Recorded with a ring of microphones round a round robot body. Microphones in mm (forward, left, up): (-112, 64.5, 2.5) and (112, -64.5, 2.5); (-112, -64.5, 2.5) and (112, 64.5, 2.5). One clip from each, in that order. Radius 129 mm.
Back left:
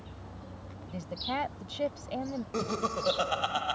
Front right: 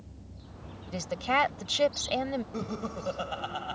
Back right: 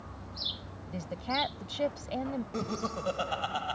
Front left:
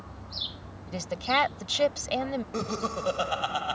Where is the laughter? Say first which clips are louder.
Back left 5 dB, front left 4 dB; 105° left.